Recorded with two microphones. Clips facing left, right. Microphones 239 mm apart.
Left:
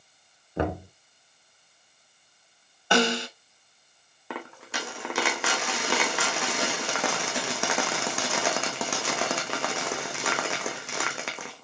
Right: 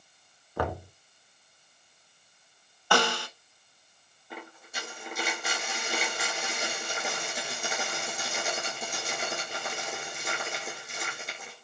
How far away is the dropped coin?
About 1.5 m.